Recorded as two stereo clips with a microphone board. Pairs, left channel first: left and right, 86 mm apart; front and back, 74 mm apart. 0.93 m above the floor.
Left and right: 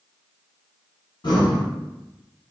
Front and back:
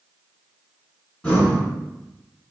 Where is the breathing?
75° left, 1.6 m.